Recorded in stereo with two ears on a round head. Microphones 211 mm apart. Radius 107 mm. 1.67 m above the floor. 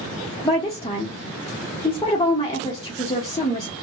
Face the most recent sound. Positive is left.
turn(degrees=15)  # may be behind; listen again after turning